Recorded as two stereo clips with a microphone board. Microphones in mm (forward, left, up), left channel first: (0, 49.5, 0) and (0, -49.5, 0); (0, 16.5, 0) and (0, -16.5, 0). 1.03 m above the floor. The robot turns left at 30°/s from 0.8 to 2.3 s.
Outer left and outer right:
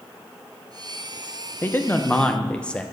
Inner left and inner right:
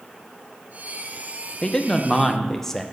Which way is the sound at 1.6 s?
25° left (ahead or behind).